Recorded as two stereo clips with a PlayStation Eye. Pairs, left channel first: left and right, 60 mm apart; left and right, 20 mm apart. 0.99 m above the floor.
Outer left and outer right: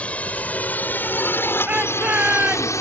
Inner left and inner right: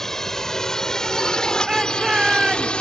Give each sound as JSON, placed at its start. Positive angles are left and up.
{"t": 0.0, "sound": "a drone", "side_deg": 20}
{"t": 1.7, "sound": "a shout", "side_deg": -25}